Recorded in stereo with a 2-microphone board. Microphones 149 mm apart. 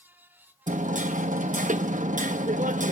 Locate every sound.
0.7 s hammering: 55° right (ahead or behind), 0.8 m